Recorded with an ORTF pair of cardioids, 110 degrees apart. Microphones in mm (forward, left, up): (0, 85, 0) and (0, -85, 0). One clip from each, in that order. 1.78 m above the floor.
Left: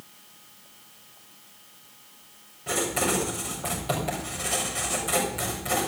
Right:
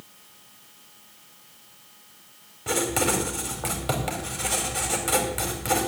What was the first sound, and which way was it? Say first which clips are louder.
Writing: right 2 dB; 50° right.